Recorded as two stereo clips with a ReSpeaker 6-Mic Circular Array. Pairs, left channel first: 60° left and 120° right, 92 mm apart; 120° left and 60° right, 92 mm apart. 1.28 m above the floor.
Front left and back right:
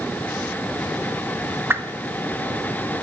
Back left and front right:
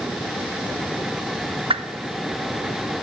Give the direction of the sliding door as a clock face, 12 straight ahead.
I don't hear a sliding door.